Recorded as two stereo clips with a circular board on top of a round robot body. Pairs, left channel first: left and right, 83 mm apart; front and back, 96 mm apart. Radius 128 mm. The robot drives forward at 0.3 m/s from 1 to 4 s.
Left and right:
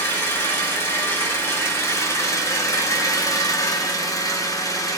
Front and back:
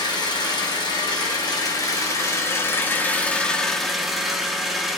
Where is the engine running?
30° left, 1.2 m; by 5.0 s 95° left, 0.8 m.